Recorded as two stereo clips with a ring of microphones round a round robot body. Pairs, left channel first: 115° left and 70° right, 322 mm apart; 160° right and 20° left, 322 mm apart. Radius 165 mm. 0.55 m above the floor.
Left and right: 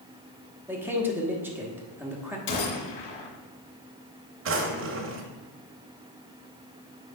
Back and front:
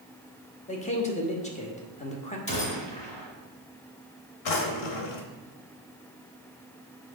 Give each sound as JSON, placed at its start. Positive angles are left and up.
{"t": 0.7, "sound": "a man speaking", "azimuth_deg": -140, "distance_m": 1.2}
{"t": 2.5, "sound": "a gunshot", "azimuth_deg": 130, "distance_m": 2.0}
{"t": 4.5, "sound": "a drawer", "azimuth_deg": -125, "distance_m": 1.0}